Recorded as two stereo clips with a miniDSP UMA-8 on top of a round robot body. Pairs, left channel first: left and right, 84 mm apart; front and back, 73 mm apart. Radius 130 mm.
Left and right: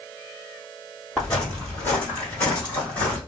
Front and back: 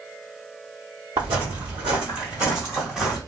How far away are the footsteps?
About 1.9 m.